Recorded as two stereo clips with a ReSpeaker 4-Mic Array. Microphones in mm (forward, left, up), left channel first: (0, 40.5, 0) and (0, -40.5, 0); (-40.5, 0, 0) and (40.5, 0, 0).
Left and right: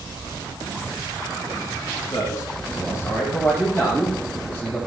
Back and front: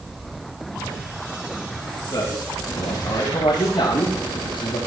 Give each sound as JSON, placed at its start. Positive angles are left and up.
{"t": 2.1, "sound": "a man speaking", "azimuth_deg": 140, "distance_m": 4.5}